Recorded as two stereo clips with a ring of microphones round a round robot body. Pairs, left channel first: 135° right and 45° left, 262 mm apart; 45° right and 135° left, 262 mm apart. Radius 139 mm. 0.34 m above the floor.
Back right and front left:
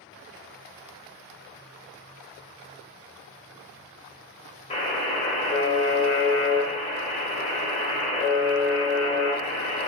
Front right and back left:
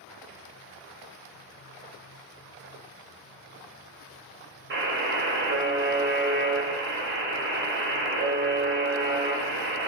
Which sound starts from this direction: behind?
A buzzer, at 4.7 s.